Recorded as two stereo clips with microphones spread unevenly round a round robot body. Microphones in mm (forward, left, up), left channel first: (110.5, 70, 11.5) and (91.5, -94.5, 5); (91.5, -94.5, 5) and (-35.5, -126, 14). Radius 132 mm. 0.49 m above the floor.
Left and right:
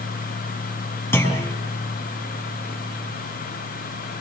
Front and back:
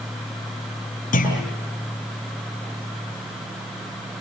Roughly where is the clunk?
Ahead.